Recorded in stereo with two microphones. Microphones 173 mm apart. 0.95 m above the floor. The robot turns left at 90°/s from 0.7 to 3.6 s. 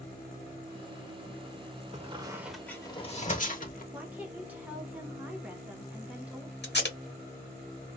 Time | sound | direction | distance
1.9 | a squeak | 40° right (ahead or behind) | 0.8 m
3.9 | a woman speaking | 10° right (ahead or behind) | 1.0 m
6.6 | tape being pulled | 80° left | 1.2 m